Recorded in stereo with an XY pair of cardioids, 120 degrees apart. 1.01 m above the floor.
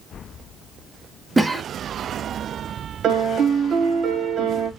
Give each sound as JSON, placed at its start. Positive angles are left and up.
{"t": 1.4, "sound": "a cough", "azimuth_deg": -10, "distance_m": 0.6}
{"t": 3.0, "sound": "a piano", "azimuth_deg": -55, "distance_m": 1.0}